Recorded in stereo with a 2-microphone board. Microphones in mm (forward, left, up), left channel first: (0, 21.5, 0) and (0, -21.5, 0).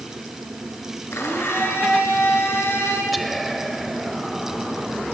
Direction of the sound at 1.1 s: 75° left (ahead or behind).